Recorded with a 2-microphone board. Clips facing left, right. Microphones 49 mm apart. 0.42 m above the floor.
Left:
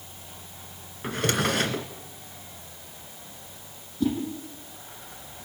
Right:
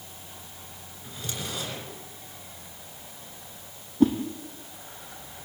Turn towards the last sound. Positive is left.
turn(degrees=-40)  # may be behind; listen again after turning